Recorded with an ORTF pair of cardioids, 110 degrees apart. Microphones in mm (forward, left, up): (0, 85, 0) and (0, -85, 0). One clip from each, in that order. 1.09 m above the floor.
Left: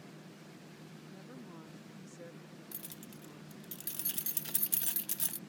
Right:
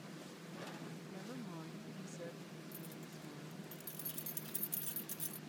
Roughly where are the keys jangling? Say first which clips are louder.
Even; ahead left.